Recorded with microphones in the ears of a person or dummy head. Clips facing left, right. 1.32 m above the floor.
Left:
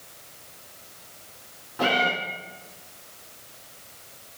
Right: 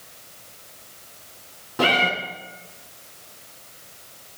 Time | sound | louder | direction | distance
1.8 | a cat meowing | right 2 dB | 50° right (ahead or behind) | 2 m